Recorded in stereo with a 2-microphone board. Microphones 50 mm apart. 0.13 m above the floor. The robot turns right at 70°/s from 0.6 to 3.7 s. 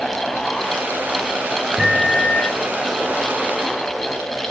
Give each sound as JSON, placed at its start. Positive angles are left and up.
{"t": 1.8, "sound": "a microwave", "azimuth_deg": 0, "distance_m": 1.4}